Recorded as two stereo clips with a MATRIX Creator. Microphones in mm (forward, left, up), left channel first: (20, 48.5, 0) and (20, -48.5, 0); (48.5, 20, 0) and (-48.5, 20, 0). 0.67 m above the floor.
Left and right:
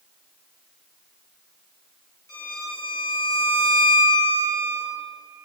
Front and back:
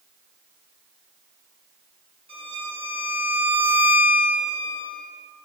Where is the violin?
145° left, 1.1 m.